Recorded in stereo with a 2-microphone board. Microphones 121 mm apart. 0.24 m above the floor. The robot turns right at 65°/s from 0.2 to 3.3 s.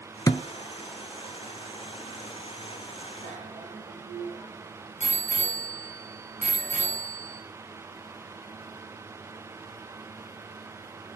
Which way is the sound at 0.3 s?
30° left (ahead or behind).